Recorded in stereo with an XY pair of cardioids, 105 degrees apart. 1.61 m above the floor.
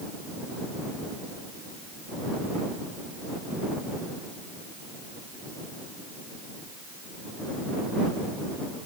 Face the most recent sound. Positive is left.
No sound to turn to.